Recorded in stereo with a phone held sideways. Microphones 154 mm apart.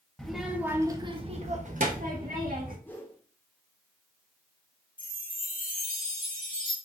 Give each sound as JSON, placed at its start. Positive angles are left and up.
{"t": 0.2, "sound": "a child speaking", "side_deg": 5, "distance_m": 1.1}
{"t": 2.9, "sound": "a whoosh", "side_deg": 15, "distance_m": 1.1}
{"t": 5.0, "sound": "a chime", "side_deg": 70, "distance_m": 1.6}